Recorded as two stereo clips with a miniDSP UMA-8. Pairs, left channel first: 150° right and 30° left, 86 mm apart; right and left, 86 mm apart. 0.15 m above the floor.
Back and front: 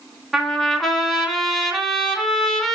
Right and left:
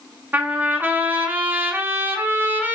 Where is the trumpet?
120° left, 0.9 m.